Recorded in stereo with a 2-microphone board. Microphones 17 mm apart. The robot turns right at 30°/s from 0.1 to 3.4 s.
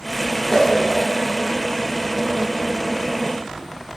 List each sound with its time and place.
0.5 s a whoosh: 55° left (ahead or behind), 0.6 m